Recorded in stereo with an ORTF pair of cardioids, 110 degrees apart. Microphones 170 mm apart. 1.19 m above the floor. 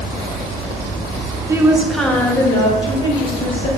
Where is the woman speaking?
20° right, 1.1 m; by 3.7 s 35° left, 2.5 m.